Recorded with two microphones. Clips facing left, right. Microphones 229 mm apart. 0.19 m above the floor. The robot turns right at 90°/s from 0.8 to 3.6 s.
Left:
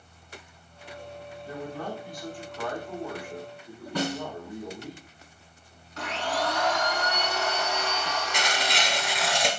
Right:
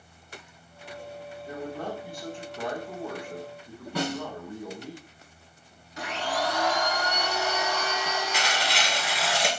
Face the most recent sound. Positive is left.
turn(degrees=-5)  # may be behind; listen again after turning